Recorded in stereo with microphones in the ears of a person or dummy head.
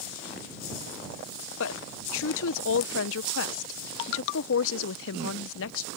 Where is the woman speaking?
75° left (ahead or behind).